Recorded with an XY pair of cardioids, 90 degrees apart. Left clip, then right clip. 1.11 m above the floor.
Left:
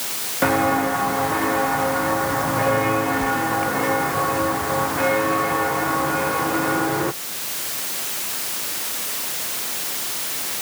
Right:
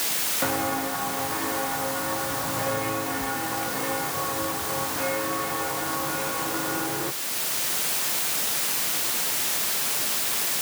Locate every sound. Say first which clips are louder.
0.4 s footsteps: left 10 dB; 60° left